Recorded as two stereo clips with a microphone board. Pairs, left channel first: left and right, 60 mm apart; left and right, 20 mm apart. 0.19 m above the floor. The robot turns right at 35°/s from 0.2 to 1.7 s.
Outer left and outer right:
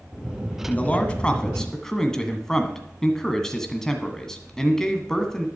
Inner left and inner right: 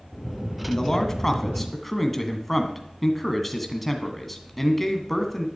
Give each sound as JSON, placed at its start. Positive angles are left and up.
{"t": 0.7, "sound": "a man speaking", "azimuth_deg": 130, "distance_m": 1.7}